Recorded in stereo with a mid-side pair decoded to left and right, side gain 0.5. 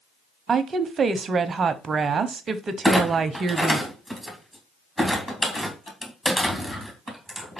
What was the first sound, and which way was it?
A woman speaking, 40° right.